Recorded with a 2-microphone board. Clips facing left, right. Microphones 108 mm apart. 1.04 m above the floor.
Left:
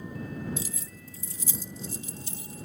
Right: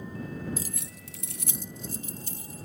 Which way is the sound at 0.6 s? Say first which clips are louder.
Even; 40° right (ahead or behind).